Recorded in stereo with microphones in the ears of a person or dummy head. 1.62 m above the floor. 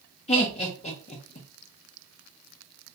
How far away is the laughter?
About 0.5 m.